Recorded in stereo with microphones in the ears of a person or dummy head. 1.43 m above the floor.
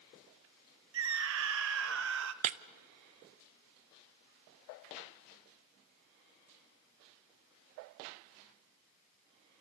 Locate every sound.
0.9 s a scream: 65° right (ahead or behind), 1.3 m
2.4 s breaking glass: 35° right (ahead or behind), 0.7 m